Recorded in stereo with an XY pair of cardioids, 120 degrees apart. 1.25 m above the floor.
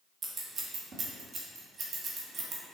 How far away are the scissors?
About 1.7 m.